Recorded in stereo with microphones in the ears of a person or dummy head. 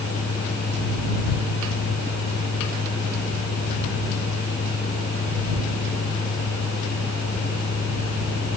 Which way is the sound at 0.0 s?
30° left (ahead or behind).